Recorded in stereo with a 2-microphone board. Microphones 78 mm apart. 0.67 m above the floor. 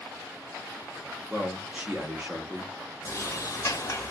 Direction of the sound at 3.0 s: 40° left (ahead or behind).